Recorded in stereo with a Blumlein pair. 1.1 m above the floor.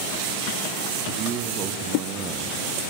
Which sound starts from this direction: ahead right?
A man speaking, at 1.1 s.